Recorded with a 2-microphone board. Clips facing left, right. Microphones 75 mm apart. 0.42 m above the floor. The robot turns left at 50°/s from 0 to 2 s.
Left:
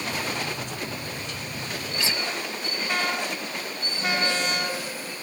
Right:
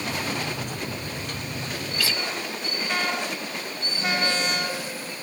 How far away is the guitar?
About 1.3 m.